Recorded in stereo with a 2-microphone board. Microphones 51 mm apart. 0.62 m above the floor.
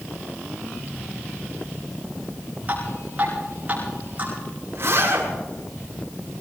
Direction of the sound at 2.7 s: 30° right (ahead or behind).